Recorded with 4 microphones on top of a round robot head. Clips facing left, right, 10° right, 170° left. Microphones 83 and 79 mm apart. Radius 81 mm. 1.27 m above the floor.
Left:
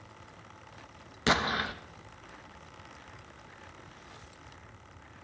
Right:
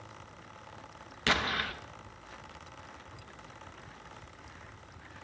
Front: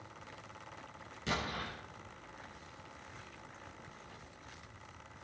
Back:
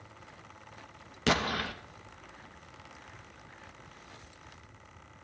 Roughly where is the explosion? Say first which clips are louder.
Left 3 dB, back 9 dB; behind.